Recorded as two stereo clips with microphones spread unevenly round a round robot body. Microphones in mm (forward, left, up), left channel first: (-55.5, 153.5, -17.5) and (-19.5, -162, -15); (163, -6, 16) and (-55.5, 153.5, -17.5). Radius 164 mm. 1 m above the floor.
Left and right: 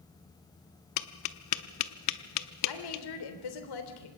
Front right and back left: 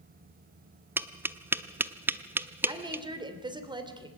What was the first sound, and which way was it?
Tapping, 55° left.